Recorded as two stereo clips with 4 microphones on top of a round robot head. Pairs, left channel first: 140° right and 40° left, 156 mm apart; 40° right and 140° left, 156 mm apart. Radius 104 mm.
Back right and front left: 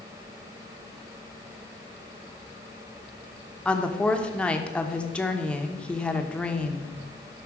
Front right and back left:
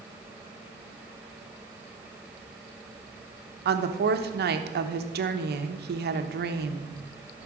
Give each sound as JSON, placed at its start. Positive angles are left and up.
{"t": 3.6, "sound": "a woman speaking", "azimuth_deg": 140, "distance_m": 1.1}